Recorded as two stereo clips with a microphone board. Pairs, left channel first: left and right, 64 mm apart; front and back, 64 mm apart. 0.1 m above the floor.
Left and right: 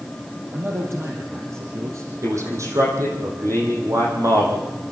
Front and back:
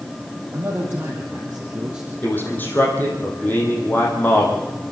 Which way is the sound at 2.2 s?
60° right.